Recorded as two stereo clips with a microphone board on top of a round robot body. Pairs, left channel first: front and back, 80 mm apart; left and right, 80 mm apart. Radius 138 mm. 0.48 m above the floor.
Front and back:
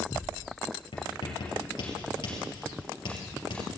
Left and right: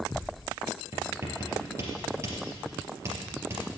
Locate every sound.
0.9 s writing: 30° right, 3.5 m